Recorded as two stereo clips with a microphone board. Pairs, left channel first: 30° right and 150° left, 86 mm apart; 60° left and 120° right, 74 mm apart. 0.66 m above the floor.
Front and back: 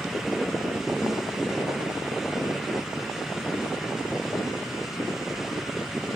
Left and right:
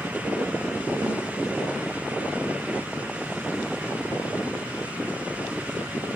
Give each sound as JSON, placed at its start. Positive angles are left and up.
{"t": 1.0, "sound": "a snare drum", "azimuth_deg": -95, "distance_m": 5.0}